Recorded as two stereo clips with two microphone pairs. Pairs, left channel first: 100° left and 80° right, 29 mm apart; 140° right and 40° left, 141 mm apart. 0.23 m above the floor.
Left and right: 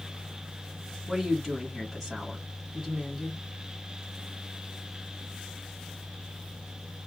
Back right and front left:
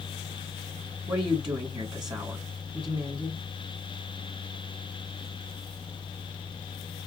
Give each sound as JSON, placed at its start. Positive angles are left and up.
{"t": 1.1, "sound": "a woman speaking", "azimuth_deg": 20, "distance_m": 1.6}